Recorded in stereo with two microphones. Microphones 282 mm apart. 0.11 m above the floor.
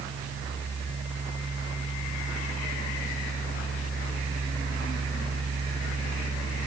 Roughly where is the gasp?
No gasp in this recording.